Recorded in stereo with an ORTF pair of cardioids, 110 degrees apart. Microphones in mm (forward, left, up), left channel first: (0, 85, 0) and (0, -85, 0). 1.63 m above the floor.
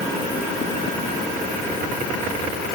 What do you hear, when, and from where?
Only background noise.